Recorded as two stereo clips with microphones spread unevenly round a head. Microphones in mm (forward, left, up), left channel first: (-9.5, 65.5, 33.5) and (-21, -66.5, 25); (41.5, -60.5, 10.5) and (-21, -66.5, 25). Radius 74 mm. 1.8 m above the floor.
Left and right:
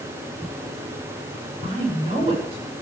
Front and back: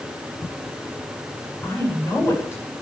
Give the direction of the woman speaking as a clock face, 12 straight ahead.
1 o'clock.